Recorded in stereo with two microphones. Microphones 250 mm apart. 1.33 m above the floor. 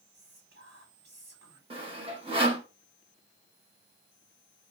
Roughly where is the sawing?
Right.